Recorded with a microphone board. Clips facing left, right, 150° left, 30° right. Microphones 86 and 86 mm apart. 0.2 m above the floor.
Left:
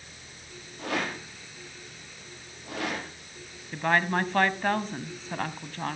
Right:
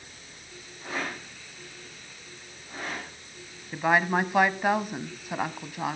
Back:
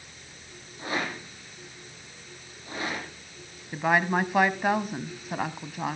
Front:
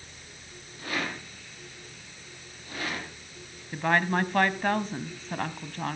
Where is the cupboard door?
No cupboard door in this recording.